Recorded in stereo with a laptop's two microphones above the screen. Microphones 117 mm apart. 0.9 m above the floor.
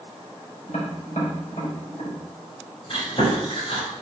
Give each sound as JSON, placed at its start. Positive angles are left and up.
{"t": 0.7, "sound": "tapping", "side_deg": 75, "distance_m": 4.5}
{"t": 2.9, "sound": "chewing", "side_deg": 50, "distance_m": 5.0}